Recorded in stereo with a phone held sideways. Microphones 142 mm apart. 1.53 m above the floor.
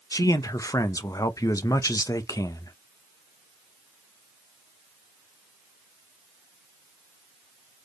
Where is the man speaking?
25° left (ahead or behind), 0.5 m.